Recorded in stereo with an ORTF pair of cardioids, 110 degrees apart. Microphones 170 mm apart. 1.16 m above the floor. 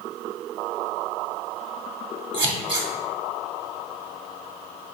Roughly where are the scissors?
Ahead right.